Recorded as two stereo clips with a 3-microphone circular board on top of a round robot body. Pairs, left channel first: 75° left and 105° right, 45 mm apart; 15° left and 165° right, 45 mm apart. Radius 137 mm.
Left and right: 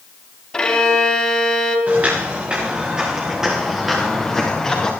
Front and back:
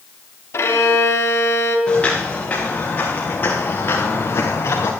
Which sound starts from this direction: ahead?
A violin, at 0.5 s.